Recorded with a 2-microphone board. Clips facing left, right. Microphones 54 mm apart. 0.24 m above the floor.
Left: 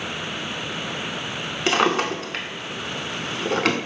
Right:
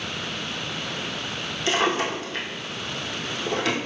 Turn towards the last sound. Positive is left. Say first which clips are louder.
# left 3 dB
turn(degrees=75)  # may be behind; listen again after turning